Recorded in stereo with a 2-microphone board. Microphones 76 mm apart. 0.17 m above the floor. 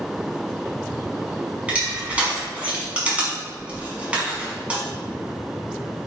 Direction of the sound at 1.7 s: 20° right (ahead or behind).